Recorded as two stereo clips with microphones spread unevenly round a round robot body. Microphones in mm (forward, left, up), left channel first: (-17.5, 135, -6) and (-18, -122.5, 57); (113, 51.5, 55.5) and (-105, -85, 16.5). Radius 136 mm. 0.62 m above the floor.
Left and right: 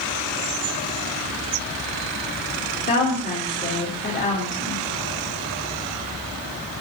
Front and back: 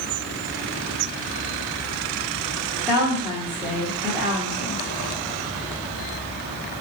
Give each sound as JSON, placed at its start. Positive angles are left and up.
{"t": 2.9, "sound": "a woman speaking", "azimuth_deg": 135, "distance_m": 1.9}